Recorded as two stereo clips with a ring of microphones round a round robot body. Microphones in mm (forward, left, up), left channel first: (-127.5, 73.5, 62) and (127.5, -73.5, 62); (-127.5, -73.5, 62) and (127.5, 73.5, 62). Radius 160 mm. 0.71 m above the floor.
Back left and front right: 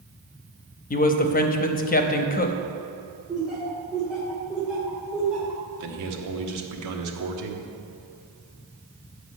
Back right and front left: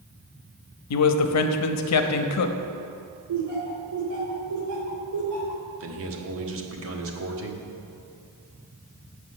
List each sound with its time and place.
0.9 s a man speaking: 155° right, 0.8 m
3.3 s laughter: 60° left, 2.5 m
5.8 s a man speaking: 10° right, 1.4 m